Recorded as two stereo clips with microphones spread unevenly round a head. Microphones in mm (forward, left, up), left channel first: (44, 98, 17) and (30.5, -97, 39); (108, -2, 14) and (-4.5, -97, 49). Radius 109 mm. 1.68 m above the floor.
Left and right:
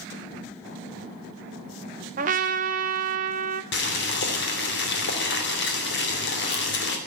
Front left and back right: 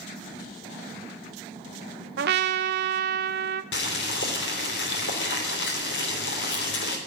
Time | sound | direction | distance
2.2 | a trumpet | 150° right | 0.8 m
3.7 | boiling | 55° left | 3 m